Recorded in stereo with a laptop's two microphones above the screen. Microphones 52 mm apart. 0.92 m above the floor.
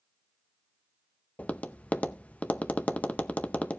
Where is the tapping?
25° left (ahead or behind), 0.6 m.